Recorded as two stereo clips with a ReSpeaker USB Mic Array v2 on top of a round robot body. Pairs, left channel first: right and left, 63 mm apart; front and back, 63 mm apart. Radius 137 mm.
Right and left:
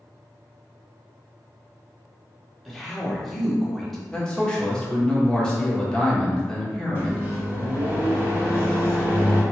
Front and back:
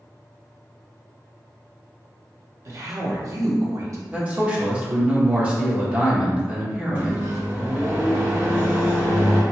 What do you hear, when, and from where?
2.6 s a woman speaking: 175° right, 1.1 m
4.1 s a man speaking: 150° right, 1.1 m
7.0 s a microwave: 140° left, 2.0 m